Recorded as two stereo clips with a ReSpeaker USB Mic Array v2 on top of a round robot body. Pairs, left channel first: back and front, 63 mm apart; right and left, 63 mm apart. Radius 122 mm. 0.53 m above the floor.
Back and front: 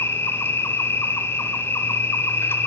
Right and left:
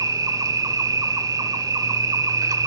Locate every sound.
0.0 s an insect: 125° left, 0.7 m